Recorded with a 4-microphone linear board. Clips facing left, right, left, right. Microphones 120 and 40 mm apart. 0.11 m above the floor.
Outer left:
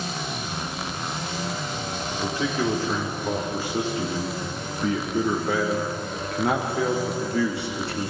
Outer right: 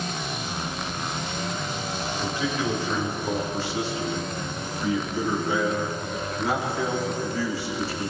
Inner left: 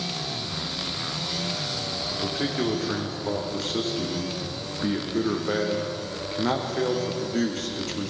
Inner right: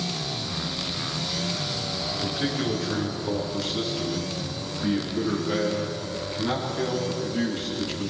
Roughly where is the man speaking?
Left.